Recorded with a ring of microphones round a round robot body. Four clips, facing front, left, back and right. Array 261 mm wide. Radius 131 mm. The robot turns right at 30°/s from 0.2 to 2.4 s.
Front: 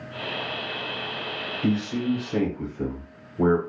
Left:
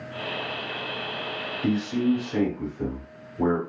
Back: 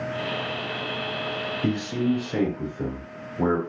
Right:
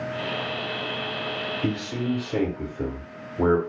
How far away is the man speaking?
About 1.1 m.